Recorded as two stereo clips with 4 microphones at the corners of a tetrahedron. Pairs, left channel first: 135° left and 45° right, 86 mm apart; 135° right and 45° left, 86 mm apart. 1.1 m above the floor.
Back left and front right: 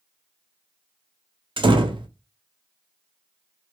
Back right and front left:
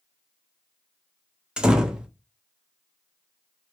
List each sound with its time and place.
1.6 s a door slam: 35° right, 0.5 m